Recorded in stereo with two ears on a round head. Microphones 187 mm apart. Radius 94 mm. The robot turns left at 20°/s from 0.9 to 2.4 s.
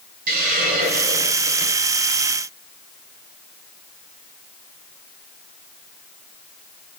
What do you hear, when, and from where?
0.3 s a hiss: 45° right (ahead or behind), 6.5 m; by 1.8 s 25° right (ahead or behind), 6.5 m